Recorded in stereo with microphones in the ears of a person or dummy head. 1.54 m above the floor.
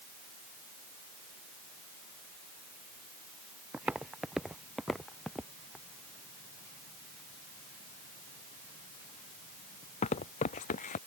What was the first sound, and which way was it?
Footsteps, centre (ahead or behind).